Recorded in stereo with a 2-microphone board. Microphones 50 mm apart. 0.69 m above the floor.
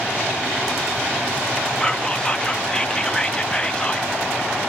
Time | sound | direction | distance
1.8 | whispering | 20° left (ahead or behind) | 0.6 m